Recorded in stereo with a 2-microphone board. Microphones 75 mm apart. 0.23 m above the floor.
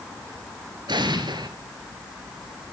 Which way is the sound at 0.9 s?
80° right.